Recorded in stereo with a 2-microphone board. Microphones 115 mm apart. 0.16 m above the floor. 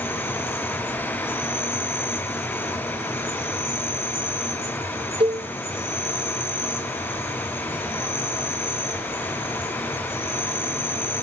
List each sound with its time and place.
0.0 s an insect: 20° left (ahead or behind), 4 m
5.2 s a cowbell: 50° right (ahead or behind), 0.7 m